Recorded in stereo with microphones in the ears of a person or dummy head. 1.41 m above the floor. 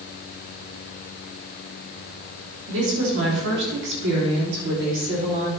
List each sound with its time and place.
2.7 s a woman speaking: 80° right, 3 m; by 5.5 s 50° right (ahead or behind), 3.5 m